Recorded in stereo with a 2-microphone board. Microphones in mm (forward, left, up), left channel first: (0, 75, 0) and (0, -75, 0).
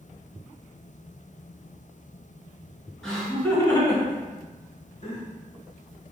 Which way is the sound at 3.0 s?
5° left (ahead or behind).